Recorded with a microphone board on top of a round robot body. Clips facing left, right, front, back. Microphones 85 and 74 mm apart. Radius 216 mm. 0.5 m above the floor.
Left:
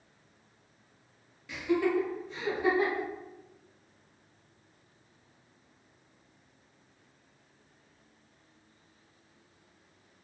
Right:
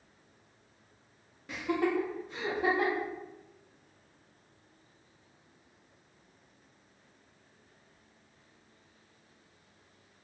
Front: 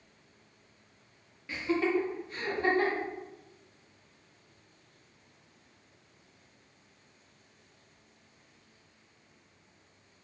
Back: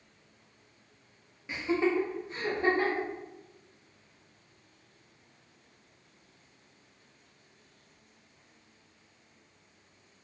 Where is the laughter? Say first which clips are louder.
Left 2 dB, back 1 dB; 115° right, 0.8 m.